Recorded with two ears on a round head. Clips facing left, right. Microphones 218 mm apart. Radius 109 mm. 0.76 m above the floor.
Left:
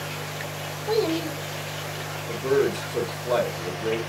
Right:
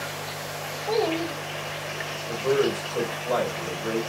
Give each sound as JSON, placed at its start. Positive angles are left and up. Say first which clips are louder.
{"t": 0.9, "sound": "a child speaking", "louder": "left 1 dB", "side_deg": 20, "distance_m": 0.6}
{"t": 2.3, "sound": "a man speaking", "louder": "left 1 dB", "side_deg": 50, "distance_m": 1.3}